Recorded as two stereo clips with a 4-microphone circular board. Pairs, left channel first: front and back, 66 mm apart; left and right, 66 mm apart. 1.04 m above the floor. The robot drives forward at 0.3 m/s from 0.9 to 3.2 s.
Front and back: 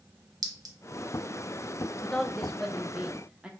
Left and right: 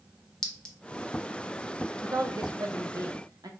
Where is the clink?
170° left, 0.8 m.